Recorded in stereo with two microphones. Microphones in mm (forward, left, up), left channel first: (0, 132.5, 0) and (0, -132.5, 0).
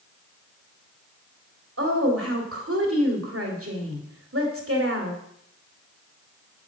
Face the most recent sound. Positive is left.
turn(degrees=-55)  # may be behind; listen again after turning